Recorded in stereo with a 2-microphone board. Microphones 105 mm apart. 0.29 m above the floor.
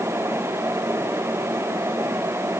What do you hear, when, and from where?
Only background noise.